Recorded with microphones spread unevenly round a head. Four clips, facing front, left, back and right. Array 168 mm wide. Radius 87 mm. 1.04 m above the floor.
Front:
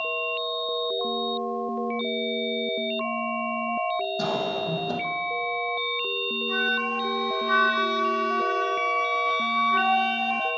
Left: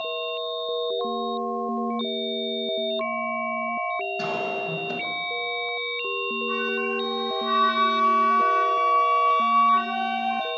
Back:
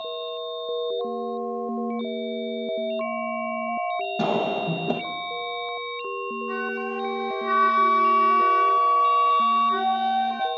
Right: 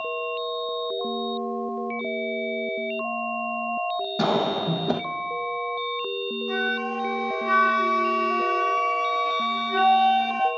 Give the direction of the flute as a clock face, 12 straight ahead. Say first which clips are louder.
Even, front 4 dB; 4 o'clock.